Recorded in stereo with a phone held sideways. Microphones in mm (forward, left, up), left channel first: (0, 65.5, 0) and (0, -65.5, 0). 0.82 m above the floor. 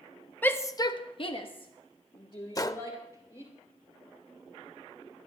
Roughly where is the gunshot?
Left.